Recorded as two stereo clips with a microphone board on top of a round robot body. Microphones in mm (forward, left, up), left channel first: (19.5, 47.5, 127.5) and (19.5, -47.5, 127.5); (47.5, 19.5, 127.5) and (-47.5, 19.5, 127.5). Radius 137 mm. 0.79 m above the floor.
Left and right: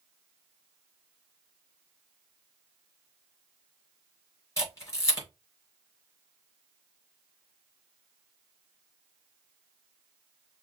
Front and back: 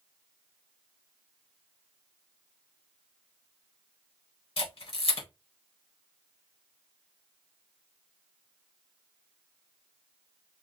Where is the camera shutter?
25° left, 4 m.